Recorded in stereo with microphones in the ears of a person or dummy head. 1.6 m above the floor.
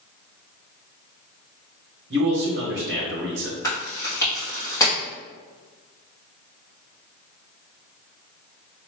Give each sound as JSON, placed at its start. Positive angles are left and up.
{"t": 2.1, "sound": "a man speaking", "side_deg": -50, "distance_m": 1.0}
{"t": 3.6, "sound": "chewing", "side_deg": 15, "distance_m": 1.8}